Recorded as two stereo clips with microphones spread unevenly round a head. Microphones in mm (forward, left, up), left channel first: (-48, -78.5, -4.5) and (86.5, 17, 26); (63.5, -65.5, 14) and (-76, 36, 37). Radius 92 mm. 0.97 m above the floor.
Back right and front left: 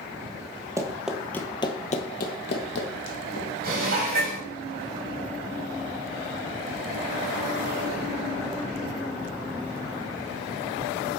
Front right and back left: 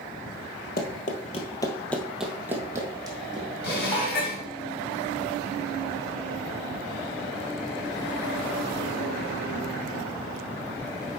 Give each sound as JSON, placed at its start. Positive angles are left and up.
{"t": 0.8, "sound": "running footsteps", "azimuth_deg": -15, "distance_m": 1.2}
{"t": 3.6, "sound": "dishes clattering", "azimuth_deg": 0, "distance_m": 3.0}